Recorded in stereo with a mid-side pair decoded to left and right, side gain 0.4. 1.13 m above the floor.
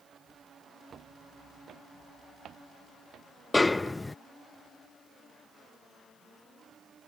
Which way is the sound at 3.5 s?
20° left.